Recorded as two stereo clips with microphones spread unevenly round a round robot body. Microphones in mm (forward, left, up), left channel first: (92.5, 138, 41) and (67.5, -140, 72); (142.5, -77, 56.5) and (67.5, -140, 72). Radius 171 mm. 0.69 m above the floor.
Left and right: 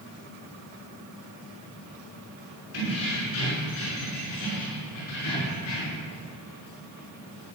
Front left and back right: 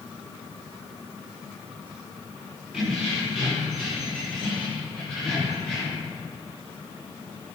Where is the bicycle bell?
No bicycle bell in this recording.